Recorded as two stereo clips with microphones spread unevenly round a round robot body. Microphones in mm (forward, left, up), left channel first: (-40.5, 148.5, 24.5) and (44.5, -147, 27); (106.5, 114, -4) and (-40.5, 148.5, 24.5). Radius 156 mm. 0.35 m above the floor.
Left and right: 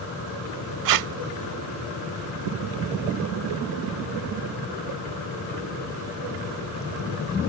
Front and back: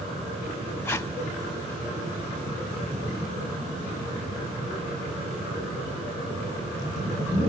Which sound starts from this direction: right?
Tape being pulled, at 0.8 s.